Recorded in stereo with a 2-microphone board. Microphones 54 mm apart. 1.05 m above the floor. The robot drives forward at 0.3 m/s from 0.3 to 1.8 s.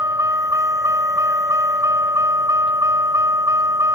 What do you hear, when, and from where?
0.0 s a vehicle: 75° right (ahead or behind)